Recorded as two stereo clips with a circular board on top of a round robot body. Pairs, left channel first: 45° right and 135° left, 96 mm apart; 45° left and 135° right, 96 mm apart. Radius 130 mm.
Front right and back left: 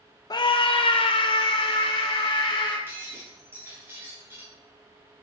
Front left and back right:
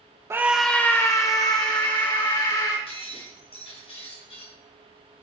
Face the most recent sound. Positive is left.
turn(degrees=65)